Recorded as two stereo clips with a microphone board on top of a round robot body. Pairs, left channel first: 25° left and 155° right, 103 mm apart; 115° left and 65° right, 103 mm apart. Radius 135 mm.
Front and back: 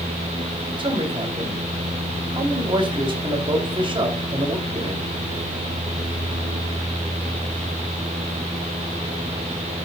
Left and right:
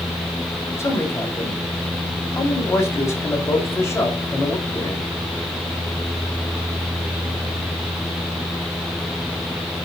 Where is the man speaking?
175° left, 2.5 m.